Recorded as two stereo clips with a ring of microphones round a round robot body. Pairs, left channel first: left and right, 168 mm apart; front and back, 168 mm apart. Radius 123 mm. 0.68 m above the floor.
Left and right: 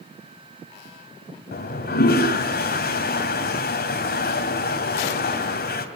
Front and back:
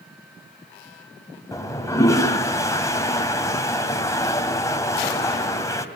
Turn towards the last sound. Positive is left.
turn(degrees=70)